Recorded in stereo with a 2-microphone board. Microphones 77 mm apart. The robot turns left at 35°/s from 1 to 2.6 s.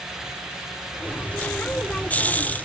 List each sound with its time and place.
Only background noise.